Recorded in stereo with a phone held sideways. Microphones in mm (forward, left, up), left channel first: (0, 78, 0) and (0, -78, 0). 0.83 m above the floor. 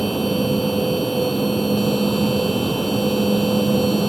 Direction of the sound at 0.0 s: Centre (ahead or behind).